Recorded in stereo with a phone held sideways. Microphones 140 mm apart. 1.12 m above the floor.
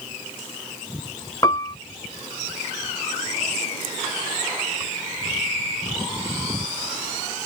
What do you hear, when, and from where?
1.4 s a piano: 25° left (ahead or behind)